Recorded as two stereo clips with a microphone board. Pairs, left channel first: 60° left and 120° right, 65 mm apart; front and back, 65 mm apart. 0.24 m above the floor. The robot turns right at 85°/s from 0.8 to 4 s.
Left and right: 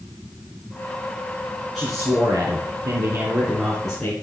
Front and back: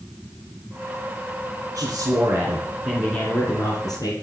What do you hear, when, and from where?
1.8 s a man speaking: 150° left, 3.5 m; by 4.1 s 20° right, 3.5 m